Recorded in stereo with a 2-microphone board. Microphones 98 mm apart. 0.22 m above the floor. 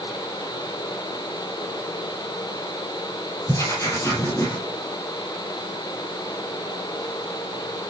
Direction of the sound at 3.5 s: 30° left (ahead or behind).